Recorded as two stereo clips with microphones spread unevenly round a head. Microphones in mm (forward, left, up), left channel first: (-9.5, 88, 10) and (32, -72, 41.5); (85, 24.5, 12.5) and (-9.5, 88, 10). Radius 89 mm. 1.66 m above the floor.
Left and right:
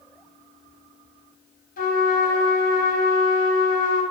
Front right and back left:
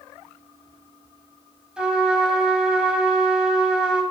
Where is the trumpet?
65° left, 3 m.